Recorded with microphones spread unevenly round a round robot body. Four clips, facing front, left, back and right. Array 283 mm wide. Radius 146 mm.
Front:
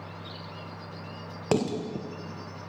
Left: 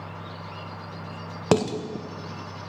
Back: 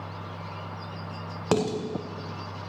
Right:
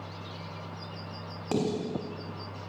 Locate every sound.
1.5 s dishes clattering: 90° left, 1.9 m